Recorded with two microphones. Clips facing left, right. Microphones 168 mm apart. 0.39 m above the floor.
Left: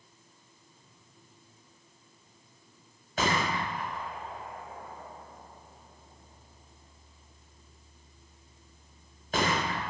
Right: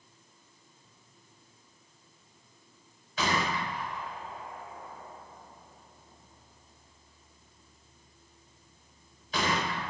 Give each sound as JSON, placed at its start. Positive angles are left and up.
{"t": 3.2, "sound": "a gunshot", "side_deg": 55, "distance_m": 0.7}